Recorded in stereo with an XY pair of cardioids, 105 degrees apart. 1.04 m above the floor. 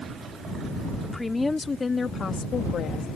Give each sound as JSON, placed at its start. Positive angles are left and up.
{"t": 1.0, "sound": "a woman speaking", "azimuth_deg": 10}